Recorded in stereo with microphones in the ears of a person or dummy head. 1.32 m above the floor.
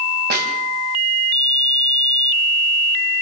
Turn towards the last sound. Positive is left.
turn(degrees=-45)  # may be behind; listen again after turning